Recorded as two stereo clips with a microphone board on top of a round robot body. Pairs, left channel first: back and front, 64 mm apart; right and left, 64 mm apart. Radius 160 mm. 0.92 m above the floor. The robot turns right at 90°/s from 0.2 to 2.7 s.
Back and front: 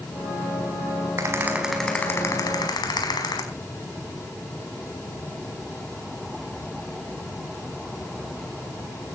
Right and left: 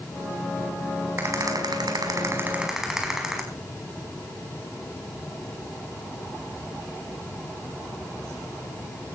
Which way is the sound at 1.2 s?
35° left.